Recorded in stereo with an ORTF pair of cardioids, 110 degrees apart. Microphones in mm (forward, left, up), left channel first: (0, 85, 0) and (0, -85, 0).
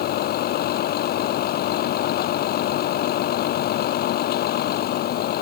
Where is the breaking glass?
I don't hear breaking glass.